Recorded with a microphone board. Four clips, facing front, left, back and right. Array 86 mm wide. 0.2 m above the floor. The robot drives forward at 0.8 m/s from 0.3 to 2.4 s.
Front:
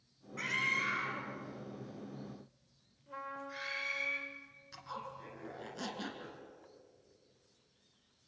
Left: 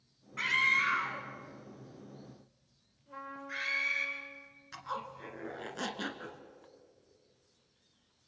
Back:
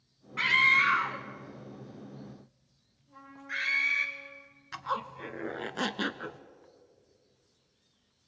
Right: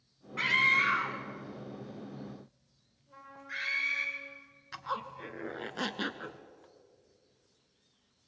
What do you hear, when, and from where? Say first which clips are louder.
0.4 s a scream: right 2 dB, back 11 dB; 165° right, 1.3 m; by 4.1 s 175° right, 2.5 m
3.1 s a trumpet: left 4 dB, front 1 dB; 25° left, 7 m
4.7 s a zipper: right 3 dB, back 11 dB; 160° right, 1.3 m